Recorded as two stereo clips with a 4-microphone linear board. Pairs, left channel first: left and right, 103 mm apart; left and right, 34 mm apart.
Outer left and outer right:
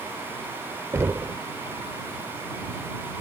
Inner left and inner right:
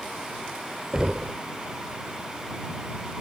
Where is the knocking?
25° right (ahead or behind).